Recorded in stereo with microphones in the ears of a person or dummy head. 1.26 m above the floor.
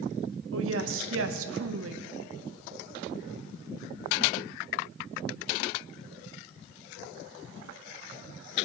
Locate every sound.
0.5 s a woman speaking: 80° right, 1.0 m